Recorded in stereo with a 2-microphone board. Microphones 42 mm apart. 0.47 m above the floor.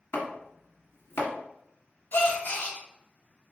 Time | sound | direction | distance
0.1 | chopping | 85° left | 1.4 m
2.1 | a gasp | 55° left (ahead or behind) | 1.6 m